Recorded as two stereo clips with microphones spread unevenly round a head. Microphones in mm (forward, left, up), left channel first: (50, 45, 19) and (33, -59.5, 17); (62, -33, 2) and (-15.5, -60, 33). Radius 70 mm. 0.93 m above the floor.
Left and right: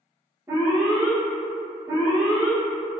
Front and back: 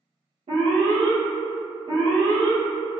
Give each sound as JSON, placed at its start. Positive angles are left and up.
{"t": 0.5, "sound": "an alarm", "azimuth_deg": -165, "distance_m": 1.1}